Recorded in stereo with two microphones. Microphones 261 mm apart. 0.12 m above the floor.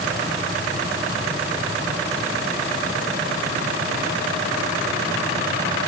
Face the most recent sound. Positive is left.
No sound to turn to.